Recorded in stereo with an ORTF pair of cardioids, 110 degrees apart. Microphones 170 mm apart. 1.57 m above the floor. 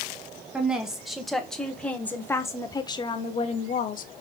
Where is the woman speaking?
5° right, 2 m; by 4.1 s 55° left, 1.0 m.